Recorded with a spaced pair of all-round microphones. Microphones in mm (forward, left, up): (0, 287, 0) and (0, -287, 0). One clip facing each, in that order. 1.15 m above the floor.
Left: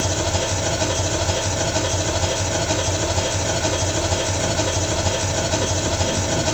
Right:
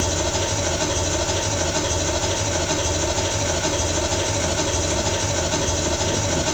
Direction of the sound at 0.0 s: Centre (ahead or behind).